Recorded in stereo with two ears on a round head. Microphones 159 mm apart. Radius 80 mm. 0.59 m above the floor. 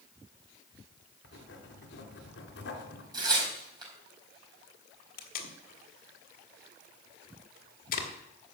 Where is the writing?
70° left (ahead or behind), 2.5 m.